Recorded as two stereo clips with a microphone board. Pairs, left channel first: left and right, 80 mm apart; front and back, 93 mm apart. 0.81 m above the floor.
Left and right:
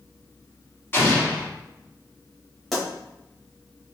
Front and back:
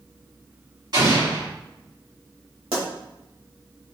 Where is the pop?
Straight behind, 2 m.